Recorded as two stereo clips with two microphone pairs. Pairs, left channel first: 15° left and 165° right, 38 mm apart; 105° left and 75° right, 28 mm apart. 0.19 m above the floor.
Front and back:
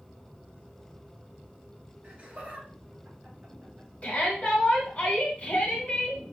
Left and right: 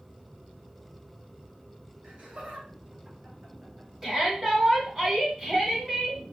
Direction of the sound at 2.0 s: 115° right.